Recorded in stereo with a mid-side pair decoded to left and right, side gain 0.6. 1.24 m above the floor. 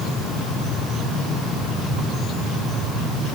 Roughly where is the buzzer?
I don't hear a buzzer.